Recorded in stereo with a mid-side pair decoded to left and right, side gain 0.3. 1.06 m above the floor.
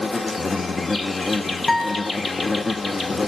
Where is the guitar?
30° left, 4 m.